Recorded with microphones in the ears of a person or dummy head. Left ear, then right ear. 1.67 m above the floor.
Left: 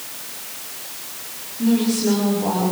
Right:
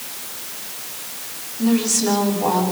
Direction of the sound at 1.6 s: 35° right (ahead or behind).